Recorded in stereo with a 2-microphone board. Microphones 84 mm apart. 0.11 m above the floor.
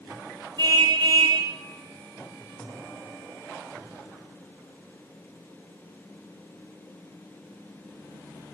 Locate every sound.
0.6 s a car horn: 60° right (ahead or behind), 4.5 m